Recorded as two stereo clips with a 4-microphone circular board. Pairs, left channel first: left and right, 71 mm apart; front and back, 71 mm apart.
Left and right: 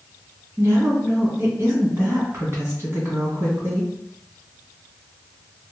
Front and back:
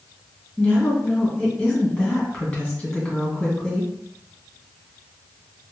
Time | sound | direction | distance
0.6 | a woman speaking | 70° right | 1.7 m